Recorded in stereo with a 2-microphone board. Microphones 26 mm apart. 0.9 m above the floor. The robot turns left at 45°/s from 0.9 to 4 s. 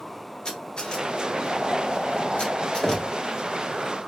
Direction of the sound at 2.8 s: 25° left (ahead or behind).